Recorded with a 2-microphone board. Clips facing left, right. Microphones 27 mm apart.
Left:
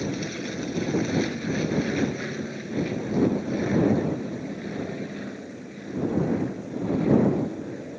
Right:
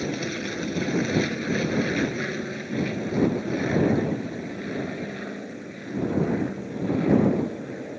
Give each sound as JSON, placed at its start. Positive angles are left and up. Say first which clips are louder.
{"t": 0.0, "sound": "an aircraft", "louder": "right 1 dB", "side_deg": -20}